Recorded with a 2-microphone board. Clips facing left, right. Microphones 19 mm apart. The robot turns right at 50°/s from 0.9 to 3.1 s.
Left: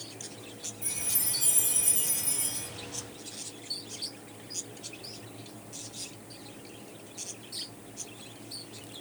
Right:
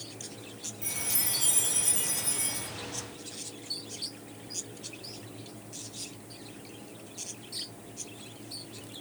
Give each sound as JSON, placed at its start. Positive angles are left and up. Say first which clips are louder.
{"t": 0.8, "sound": "a chime", "louder": "right 2 dB", "azimuth_deg": -85, "distance_m": 1.3}